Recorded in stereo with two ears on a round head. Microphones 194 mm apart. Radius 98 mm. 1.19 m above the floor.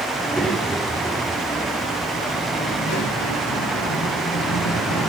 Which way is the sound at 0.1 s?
Centre (ahead or behind).